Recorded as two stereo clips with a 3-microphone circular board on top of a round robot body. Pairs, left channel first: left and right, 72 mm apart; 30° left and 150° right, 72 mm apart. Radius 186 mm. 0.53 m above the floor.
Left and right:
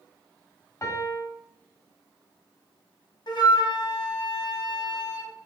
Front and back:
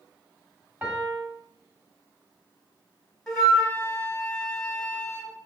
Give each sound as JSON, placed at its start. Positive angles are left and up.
{"t": 0.8, "sound": "a piano", "azimuth_deg": 140, "distance_m": 1.6}
{"t": 3.3, "sound": "a flute", "azimuth_deg": 115, "distance_m": 1.9}